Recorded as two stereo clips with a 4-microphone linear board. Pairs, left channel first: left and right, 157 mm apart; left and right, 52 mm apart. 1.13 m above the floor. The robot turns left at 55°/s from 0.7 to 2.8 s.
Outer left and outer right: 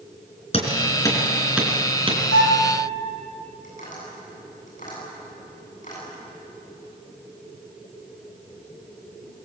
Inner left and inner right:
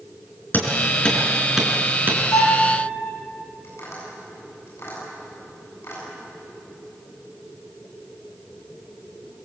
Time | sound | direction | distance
0.5 | hammering | 40° left (ahead or behind) | 4 m
2.3 | a violin | 80° left | 4 m
3.6 | tapping | 55° left (ahead or behind) | 9 m